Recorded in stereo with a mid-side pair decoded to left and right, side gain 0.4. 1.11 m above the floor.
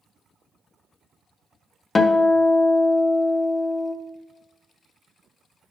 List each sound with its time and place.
1.9 s a guitar: 40° left, 0.8 m